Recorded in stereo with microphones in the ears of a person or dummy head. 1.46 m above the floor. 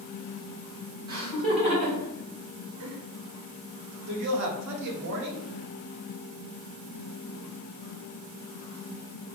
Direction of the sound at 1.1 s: 25° right (ahead or behind).